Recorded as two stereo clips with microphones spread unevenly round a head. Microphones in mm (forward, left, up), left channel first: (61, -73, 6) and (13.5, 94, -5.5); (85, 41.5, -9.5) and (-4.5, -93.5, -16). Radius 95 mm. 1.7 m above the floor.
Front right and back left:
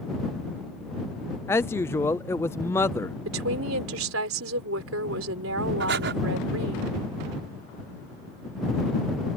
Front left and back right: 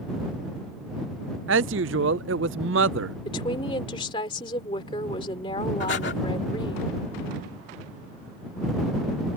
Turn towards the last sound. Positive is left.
turn(degrees=90)